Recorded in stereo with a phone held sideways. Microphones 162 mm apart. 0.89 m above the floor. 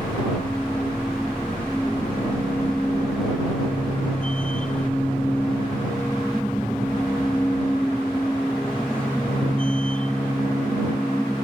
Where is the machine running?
5° left (ahead or behind).